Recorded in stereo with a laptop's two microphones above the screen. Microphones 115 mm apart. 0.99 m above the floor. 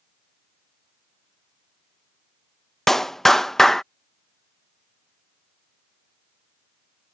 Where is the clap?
5° left (ahead or behind).